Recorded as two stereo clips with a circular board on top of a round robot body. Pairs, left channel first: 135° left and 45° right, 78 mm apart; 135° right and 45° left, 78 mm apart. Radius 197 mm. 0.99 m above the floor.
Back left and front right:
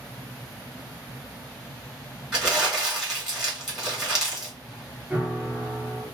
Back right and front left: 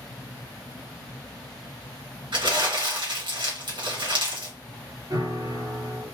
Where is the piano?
25° left, 2.0 m.